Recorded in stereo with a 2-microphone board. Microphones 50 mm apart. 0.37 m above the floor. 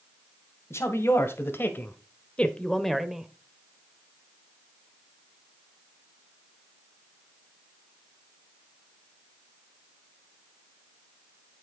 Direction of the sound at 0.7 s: 60° left (ahead or behind).